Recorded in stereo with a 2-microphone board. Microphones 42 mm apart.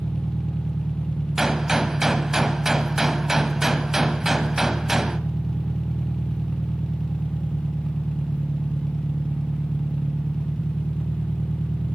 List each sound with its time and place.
0.0 s an engine running: 35° left (ahead or behind), 1.3 m
1.4 s a gunshot: 10° right (ahead or behind), 1.2 m